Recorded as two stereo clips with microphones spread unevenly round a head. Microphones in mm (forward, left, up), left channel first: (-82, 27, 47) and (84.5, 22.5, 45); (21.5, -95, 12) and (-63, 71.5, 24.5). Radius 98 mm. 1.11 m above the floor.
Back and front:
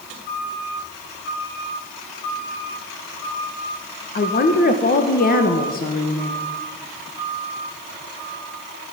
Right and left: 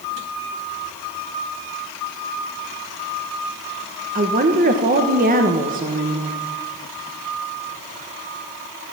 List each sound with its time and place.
4.2 s a woman speaking: 155° left, 1.2 m